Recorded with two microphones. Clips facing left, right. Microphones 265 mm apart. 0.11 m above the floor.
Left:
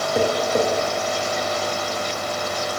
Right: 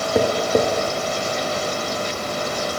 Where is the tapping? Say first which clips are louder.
Right 2 dB; 60° right (ahead or behind), 0.6 m.